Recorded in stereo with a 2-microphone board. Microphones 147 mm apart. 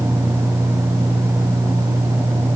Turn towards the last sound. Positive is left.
No sound to turn to.